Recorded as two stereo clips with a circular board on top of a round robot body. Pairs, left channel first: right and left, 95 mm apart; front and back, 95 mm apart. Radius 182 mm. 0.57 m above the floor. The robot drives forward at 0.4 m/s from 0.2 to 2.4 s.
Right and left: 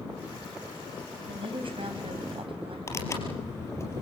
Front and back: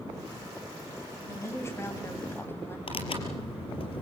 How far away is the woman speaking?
About 4 m.